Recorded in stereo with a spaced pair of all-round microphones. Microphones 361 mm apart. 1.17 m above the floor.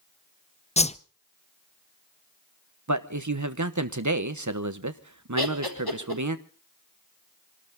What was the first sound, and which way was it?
A whoosh, 20° left (ahead or behind).